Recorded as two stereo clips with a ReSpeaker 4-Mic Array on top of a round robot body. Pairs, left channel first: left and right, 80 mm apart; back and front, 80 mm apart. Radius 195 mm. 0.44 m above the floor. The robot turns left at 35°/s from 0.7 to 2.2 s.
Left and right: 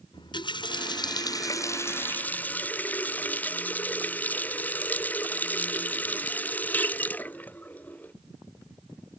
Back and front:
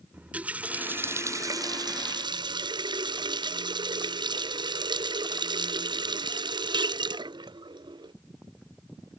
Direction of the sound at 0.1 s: 75° left.